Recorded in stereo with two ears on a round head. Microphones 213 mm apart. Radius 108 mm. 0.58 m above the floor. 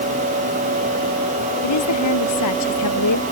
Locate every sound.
1.6 s a woman speaking: 80° left; by 3.2 s 85° left